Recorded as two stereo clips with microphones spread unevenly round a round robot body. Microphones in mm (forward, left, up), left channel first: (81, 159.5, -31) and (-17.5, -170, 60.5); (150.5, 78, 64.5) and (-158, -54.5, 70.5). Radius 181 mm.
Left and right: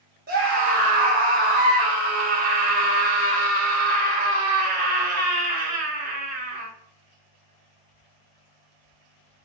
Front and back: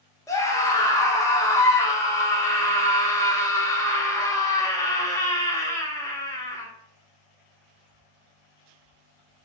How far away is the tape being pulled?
No tape being pulled in this recording.